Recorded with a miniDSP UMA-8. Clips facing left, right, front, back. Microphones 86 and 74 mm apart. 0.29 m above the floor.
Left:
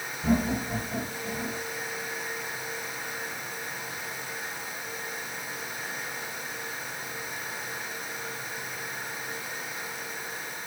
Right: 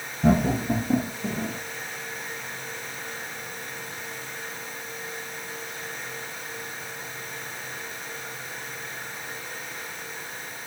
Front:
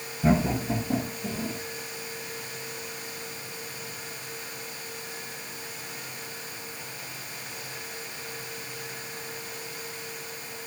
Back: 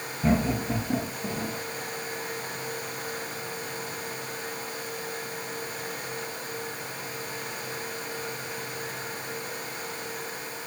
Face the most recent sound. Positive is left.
turn(degrees=-110)